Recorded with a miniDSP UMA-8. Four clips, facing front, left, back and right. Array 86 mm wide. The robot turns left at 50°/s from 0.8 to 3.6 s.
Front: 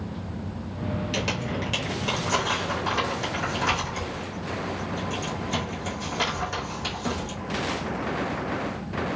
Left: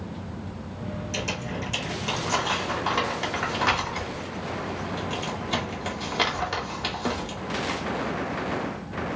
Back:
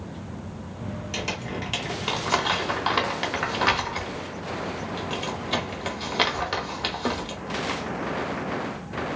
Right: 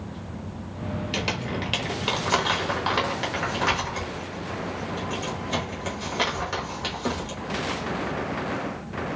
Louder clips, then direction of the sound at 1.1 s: Right 2 dB, front 3 dB; 65° right.